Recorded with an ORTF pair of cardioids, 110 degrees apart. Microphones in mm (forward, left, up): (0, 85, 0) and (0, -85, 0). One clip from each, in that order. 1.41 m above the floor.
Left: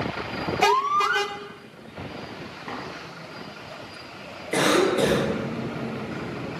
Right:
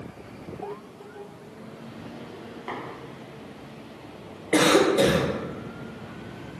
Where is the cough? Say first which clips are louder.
Right 2 dB; 15° right, 0.6 m.